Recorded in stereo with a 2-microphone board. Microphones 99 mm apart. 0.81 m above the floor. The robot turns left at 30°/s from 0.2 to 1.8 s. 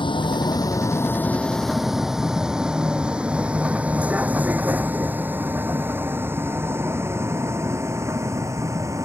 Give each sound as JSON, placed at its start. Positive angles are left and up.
{"t": 0.0, "sound": "a vehicle", "side_deg": 55}